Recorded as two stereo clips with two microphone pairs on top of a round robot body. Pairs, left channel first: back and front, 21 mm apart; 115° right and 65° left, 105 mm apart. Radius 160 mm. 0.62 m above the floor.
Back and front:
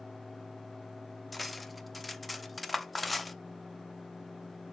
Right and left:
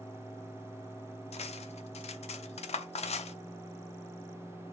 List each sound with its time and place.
1.3 s cutlery clinking: 95° right, 0.7 m